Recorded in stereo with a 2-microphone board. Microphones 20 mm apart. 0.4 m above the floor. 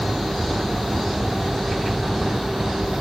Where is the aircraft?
55° left (ahead or behind).